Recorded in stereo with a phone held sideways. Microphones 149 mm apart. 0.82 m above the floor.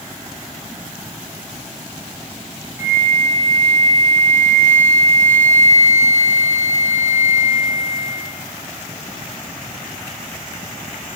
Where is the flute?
20° right (ahead or behind), 0.6 m.